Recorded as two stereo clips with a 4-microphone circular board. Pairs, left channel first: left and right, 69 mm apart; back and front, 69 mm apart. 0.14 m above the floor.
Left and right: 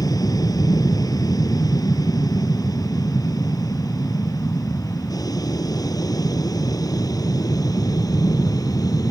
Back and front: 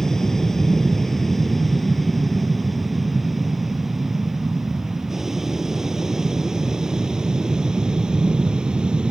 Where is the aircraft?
95° left; by 9.1 s 75° left.